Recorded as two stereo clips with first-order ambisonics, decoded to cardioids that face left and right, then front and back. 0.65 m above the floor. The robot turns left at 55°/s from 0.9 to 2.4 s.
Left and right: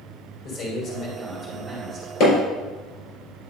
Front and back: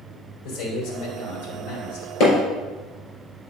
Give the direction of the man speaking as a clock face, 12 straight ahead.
11 o'clock.